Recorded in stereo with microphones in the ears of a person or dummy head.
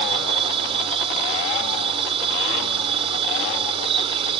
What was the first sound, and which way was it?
A machine running, 30° right (ahead or behind).